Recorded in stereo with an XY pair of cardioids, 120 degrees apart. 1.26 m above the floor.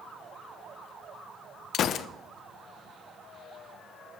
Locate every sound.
1.7 s a gunshot: 55° left, 0.7 m